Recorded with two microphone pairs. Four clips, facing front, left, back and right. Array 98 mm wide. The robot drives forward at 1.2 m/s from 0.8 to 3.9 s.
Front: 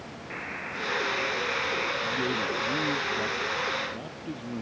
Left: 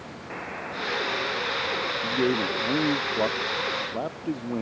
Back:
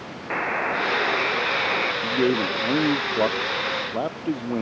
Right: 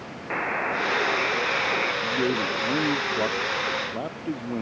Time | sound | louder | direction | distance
0.3 | a buzzer | right 9 dB, back 13 dB | 155° right | ?
2.0 | a man speaking | even, back 7 dB | 165° left | ?